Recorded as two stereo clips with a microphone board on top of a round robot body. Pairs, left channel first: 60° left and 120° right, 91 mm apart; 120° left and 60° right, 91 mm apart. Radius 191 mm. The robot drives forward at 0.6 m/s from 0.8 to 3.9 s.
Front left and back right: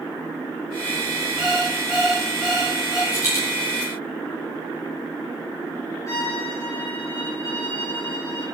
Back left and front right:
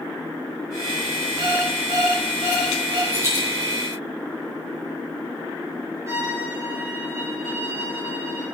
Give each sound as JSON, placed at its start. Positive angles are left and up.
{"t": 1.4, "sound": "an alarm clock", "azimuth_deg": -30, "distance_m": 7.0}
{"t": 3.1, "sound": "a dropped coin", "azimuth_deg": 5, "distance_m": 8.5}
{"t": 6.1, "sound": "a violin", "azimuth_deg": 0, "distance_m": 5.0}